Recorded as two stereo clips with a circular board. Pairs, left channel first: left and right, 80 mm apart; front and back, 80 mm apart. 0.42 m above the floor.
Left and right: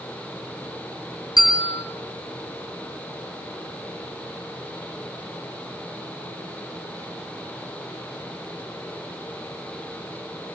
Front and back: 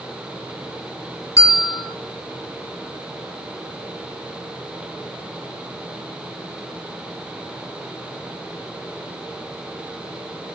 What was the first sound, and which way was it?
A bell, 55° left.